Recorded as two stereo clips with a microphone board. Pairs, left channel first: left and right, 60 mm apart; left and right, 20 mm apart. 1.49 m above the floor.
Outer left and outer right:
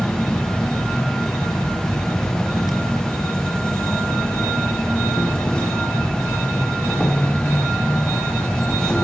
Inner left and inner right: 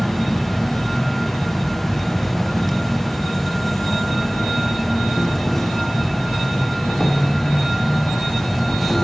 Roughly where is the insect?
Centre.